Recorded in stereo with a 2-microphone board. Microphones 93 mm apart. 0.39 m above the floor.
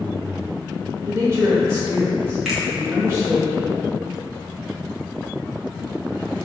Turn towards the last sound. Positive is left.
turn(degrees=0)  # may be behind; listen again after turning